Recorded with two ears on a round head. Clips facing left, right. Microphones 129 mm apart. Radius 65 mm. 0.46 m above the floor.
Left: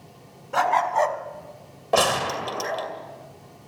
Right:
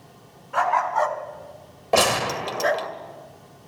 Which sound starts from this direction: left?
A dog barking, at 0.5 s.